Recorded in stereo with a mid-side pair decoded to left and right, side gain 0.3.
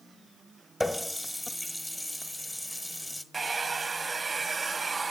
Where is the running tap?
15° left, 1.1 m.